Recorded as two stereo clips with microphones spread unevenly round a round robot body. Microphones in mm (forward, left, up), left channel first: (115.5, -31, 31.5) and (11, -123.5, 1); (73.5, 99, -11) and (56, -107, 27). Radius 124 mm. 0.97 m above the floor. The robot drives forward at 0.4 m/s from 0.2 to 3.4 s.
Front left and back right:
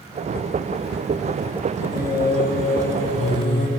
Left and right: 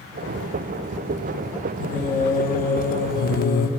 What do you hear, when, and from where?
1.8 s singing: 50° left, 1.0 m; by 3.7 s 100° left, 0.9 m